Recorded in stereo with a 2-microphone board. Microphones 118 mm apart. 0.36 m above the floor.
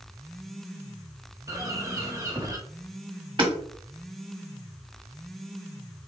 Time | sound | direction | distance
1.5 | a bird | 25° right (ahead or behind) | 1.0 m
3.4 | hammering | 40° right (ahead or behind) | 1.3 m